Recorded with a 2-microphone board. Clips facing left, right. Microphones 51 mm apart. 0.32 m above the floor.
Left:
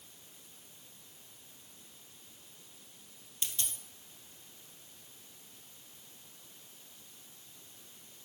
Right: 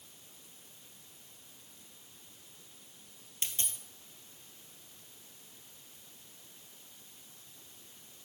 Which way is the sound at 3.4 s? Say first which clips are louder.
Right 1 dB; 30° right (ahead or behind).